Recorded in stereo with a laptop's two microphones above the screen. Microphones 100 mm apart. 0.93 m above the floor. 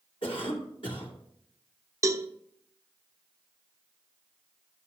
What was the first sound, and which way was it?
A cough, 60° left (ahead or behind).